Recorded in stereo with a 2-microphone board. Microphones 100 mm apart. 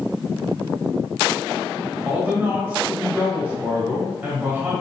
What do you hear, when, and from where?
2.0 s a man speaking: 15° right (ahead or behind), 1.6 m